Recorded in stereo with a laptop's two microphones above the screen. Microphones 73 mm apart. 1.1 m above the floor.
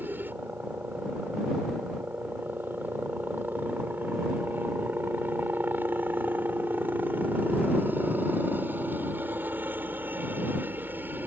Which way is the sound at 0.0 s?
25° right (ahead or behind).